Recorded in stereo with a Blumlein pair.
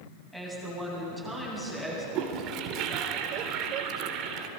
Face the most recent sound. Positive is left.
turn(degrees=-35)